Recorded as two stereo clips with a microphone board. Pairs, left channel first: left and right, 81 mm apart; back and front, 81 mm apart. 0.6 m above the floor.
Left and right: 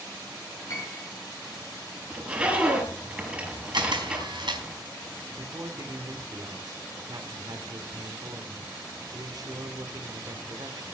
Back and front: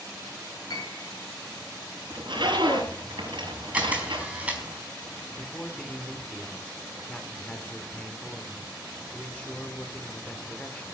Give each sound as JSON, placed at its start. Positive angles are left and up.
{"t": 0.7, "sound": "a piano", "azimuth_deg": 145, "distance_m": 6.0}
{"t": 2.1, "sound": "a zipper", "azimuth_deg": -15, "distance_m": 8.5}
{"t": 3.7, "sound": "a camera shutter", "azimuth_deg": -75, "distance_m": 4.5}
{"t": 5.4, "sound": "a man speaking", "azimuth_deg": -110, "distance_m": 2.5}